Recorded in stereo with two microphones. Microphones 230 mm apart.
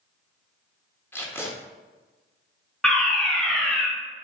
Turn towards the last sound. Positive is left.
turn(degrees=5)  # may be behind; listen again after turning